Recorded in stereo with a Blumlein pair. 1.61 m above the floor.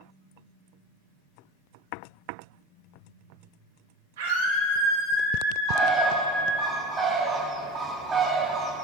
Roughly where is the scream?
Ahead right.